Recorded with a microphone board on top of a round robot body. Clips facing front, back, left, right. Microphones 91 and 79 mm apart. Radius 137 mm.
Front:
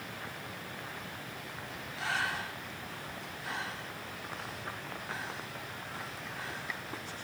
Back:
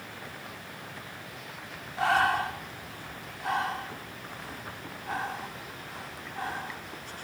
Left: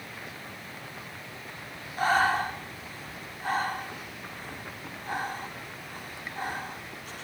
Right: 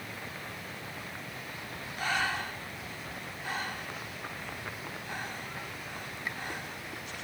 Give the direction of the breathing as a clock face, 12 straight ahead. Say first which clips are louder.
Back 11 dB, left 8 dB; 7 o'clock.